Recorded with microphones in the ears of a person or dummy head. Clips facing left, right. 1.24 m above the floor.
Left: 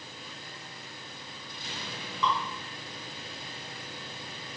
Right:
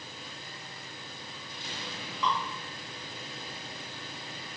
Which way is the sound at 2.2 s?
60° left (ahead or behind).